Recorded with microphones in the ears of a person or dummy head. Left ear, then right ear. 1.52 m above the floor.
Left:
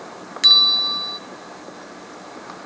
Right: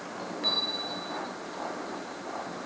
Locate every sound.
0.4 s a bell: 60° left (ahead or behind), 0.5 m